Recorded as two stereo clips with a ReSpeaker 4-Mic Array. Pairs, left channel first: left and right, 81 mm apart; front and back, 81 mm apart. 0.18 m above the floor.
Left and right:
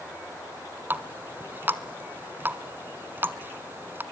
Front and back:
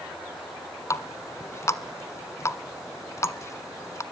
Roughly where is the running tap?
Ahead right.